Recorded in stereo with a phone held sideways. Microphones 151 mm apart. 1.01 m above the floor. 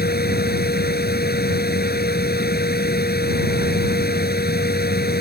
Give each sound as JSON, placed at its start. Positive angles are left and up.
{"t": 0.0, "sound": "a fan", "side_deg": 90}